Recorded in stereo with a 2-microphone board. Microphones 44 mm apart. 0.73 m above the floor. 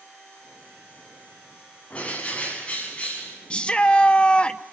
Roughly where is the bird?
Left.